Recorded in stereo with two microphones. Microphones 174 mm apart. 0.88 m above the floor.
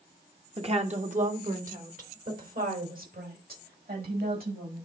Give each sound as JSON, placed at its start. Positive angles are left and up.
{"t": 0.6, "sound": "a woman speaking", "side_deg": -35, "distance_m": 1.4}